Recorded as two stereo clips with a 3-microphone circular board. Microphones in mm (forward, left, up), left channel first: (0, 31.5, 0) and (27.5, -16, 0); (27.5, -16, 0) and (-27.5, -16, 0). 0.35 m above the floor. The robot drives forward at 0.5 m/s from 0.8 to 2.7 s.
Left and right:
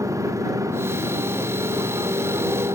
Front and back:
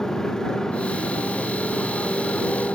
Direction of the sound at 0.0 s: 80° right.